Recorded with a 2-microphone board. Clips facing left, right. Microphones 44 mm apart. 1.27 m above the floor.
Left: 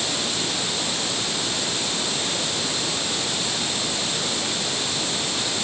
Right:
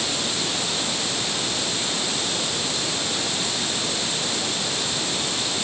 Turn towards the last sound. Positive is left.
No sound to turn to.